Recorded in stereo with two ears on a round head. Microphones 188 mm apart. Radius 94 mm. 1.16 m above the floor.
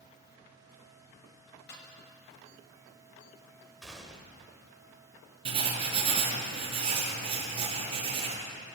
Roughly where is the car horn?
I don't hear a car horn.